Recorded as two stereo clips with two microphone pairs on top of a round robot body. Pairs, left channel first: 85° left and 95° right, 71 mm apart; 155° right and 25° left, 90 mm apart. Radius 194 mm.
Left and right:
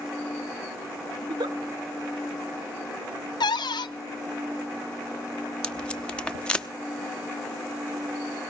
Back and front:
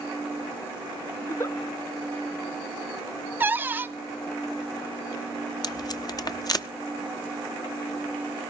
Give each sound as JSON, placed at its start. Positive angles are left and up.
{"t": 1.2, "sound": "a giggle", "azimuth_deg": -95, "distance_m": 1.5}
{"t": 3.4, "sound": "a cupboard door", "azimuth_deg": 95, "distance_m": 1.0}
{"t": 5.6, "sound": "tape being pulled", "azimuth_deg": 160, "distance_m": 1.1}